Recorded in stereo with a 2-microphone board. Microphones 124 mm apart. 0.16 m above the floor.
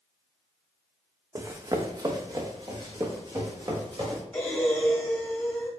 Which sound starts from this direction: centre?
Breathing, at 4.3 s.